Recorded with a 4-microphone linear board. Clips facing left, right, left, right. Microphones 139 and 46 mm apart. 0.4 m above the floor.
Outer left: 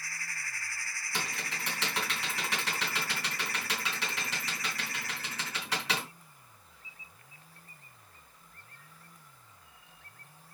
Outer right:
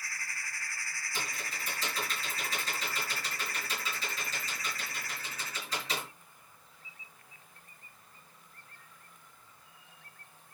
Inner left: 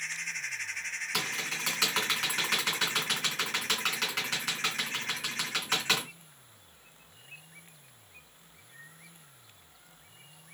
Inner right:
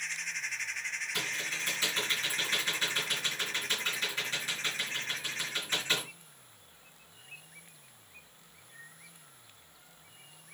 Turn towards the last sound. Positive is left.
turn(degrees=75)  # may be behind; listen again after turning